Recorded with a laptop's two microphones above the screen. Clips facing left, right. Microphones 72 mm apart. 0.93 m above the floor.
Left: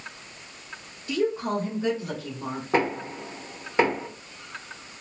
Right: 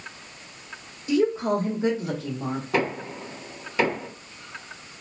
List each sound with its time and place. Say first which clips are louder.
1.1 s a woman speaking: right 4 dB; 25° right (ahead or behind), 0.9 m; by 2.6 s 40° right (ahead or behind), 0.9 m
2.7 s knocking: left 3 dB; 30° left (ahead or behind), 0.9 m